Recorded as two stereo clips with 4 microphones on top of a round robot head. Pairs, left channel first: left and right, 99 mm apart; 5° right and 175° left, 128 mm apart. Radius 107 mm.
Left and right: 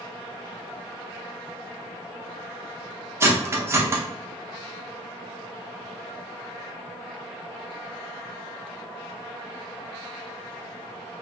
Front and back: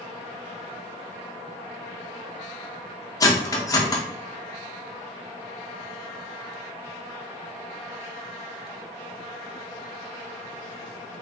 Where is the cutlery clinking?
45° right, 0.7 m.